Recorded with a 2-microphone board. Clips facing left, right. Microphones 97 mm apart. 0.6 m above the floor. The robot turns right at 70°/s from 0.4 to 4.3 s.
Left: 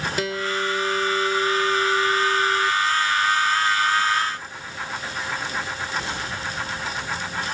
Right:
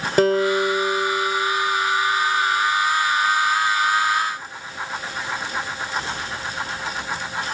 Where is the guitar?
55° right; by 2.7 s 105° left.